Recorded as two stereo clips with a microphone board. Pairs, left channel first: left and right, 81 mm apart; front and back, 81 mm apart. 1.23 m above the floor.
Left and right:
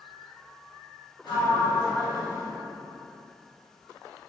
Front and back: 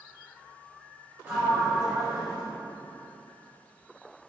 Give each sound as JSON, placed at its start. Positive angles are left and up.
{"t": 1.2, "sound": "a sliding door", "azimuth_deg": 115, "distance_m": 0.9}